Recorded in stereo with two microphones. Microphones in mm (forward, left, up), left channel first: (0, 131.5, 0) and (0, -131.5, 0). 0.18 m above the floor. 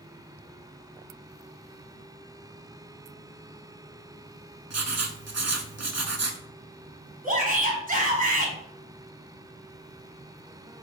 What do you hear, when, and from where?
4.7 s writing: 70° right (ahead or behind), 0.5 m
7.2 s a shout: 30° right (ahead or behind), 1.3 m